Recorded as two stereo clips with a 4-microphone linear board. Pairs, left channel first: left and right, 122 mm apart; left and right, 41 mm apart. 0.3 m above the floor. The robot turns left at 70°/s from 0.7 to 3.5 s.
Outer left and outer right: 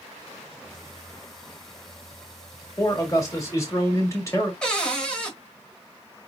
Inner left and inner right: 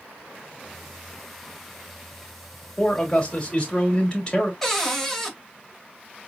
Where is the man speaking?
25° left (ahead or behind), 1.6 m.